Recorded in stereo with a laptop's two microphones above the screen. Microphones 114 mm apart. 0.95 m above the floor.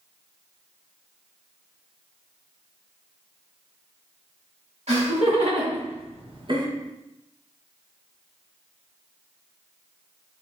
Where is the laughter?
75° right (ahead or behind), 2.0 m; by 6.7 s 35° right (ahead or behind), 0.7 m.